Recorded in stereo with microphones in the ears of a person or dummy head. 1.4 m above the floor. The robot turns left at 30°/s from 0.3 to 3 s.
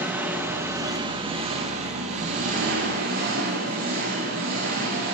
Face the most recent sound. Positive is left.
turn(degrees=-100)